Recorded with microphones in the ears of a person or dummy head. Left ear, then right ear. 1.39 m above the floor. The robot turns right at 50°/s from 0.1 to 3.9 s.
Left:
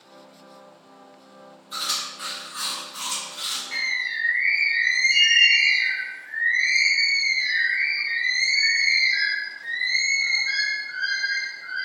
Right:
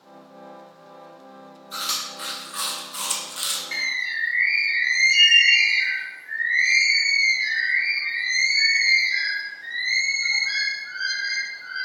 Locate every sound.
1.7 s chewing: centre (ahead or behind), 0.6 m; by 3.6 s 50° right (ahead or behind), 0.6 m
3.7 s a bird: 10° right (ahead or behind), 0.7 m; by 11.9 s 20° right (ahead or behind), 0.7 m